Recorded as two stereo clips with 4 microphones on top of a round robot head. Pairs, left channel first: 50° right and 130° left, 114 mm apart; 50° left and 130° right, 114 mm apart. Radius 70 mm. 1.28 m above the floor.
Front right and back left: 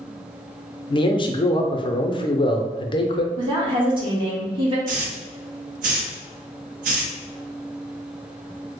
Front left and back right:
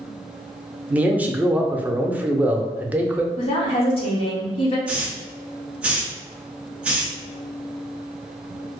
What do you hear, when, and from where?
0.9 s a man speaking: 60° right, 0.5 m
3.4 s a woman speaking: 85° left, 1.3 m
4.9 s a hiss: 145° left, 0.6 m